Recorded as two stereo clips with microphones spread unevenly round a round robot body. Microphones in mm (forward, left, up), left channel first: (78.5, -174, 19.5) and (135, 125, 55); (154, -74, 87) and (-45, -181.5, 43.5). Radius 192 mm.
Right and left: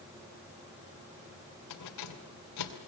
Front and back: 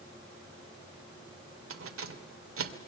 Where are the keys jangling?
140° right, 2.5 m.